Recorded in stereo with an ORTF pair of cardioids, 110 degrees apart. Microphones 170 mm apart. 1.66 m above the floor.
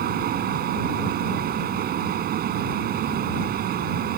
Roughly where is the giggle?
I don't hear a giggle.